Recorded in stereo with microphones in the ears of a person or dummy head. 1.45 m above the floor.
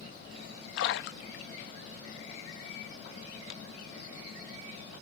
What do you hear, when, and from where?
0.8 s a splash: 65° left (ahead or behind), 0.7 m